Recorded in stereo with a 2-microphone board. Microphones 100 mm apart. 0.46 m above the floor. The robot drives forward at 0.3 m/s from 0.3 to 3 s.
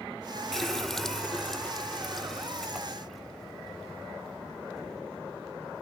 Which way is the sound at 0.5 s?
5° left (ahead or behind).